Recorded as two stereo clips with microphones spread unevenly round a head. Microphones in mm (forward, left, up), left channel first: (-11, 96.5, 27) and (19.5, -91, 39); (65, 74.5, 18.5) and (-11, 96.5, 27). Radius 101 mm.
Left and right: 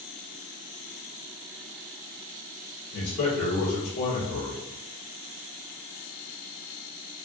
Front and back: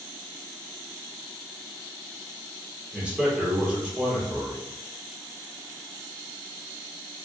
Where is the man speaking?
90° left, 1.5 m.